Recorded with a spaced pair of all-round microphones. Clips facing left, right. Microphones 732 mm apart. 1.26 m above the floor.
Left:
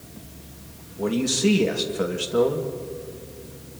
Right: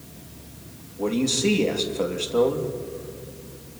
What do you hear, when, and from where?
1.0 s a man speaking: 45° left (ahead or behind), 2 m